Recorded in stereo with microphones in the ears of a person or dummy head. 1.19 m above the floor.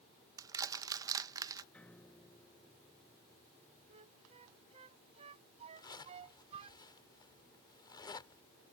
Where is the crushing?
20° right (ahead or behind).